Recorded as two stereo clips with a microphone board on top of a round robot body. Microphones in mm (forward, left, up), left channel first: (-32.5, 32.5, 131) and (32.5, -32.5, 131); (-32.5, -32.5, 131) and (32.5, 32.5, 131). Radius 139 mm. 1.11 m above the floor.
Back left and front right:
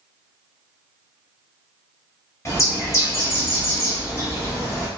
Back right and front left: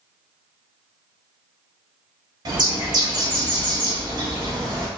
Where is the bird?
80° left, 1.0 m.